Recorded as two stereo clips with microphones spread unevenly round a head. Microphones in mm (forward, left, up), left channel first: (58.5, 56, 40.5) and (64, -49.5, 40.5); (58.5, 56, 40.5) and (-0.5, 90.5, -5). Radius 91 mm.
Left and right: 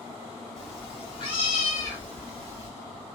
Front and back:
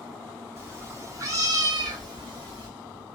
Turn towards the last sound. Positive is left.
turn(degrees=-135)